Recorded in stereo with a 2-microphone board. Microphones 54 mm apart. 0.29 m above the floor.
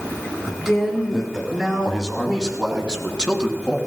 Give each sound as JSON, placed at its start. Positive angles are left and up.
{"t": 0.5, "sound": "a man speaking", "side_deg": -10, "distance_m": 6.0}